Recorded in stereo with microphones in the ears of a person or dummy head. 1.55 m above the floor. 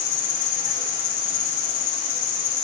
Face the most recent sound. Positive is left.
turn(degrees=40)  # may be behind; listen again after turning